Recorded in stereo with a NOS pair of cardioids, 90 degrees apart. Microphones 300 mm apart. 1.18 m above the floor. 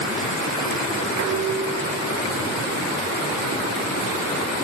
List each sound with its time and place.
1.2 s dishes clattering: 65° right, 1.6 m